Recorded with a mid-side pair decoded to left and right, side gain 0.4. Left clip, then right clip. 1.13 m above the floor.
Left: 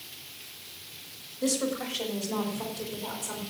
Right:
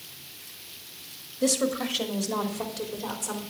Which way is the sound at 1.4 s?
55° right.